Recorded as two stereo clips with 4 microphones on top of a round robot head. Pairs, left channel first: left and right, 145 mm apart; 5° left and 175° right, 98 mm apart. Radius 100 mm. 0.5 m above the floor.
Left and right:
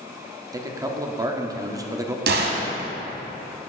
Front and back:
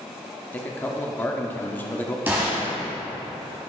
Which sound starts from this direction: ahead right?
A man speaking, at 0.5 s.